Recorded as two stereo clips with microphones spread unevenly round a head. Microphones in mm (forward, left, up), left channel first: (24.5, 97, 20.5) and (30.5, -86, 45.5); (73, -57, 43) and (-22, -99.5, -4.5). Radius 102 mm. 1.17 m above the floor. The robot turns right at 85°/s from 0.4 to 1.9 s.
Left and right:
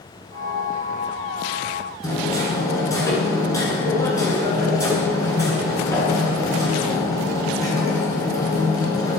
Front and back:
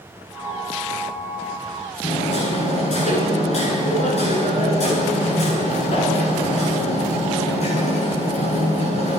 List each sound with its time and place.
2.0 s hammering: 20° left, 10 m